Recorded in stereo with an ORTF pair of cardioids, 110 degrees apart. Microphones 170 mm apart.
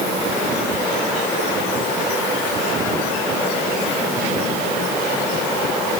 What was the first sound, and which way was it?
Only background noise.